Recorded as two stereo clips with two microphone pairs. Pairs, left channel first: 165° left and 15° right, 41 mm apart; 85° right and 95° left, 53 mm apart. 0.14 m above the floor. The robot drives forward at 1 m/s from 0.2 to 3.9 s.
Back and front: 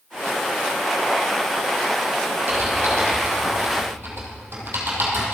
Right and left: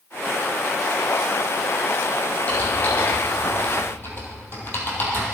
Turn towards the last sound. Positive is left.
turn(degrees=-40)